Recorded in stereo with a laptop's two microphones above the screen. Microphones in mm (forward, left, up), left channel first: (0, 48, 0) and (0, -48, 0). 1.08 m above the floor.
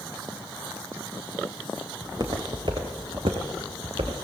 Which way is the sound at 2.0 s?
40° right (ahead or behind).